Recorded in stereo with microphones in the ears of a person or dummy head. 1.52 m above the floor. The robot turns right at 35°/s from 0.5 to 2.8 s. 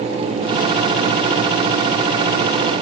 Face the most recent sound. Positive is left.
No sound to turn to.